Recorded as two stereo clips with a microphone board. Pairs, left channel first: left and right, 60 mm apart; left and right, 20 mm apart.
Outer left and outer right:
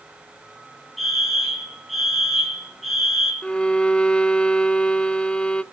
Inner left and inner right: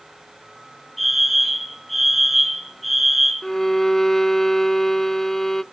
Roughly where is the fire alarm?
Centre.